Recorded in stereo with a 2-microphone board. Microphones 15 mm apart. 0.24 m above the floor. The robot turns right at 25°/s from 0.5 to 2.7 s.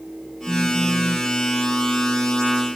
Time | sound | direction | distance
0.5 | a phone buzzing | 15° left (ahead or behind) | ?